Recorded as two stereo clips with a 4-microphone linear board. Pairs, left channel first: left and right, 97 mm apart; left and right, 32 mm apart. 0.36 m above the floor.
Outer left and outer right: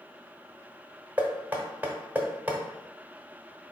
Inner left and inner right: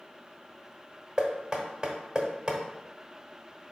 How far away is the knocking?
About 0.9 m.